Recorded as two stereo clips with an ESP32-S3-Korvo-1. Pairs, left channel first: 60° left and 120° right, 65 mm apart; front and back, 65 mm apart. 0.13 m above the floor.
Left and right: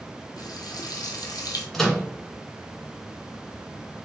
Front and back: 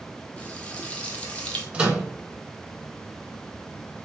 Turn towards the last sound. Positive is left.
turn(degrees=135)